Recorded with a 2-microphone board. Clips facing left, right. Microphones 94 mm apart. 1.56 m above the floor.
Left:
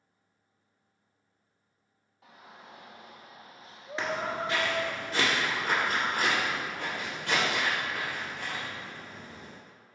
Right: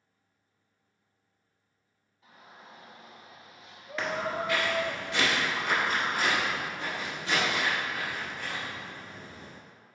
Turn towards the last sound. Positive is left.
turn(degrees=65)  # may be behind; listen again after turning